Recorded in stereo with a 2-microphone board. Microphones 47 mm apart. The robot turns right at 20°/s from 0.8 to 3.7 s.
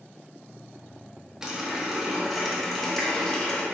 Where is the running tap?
15° right, 0.8 m; by 3.6 s 25° left, 0.8 m.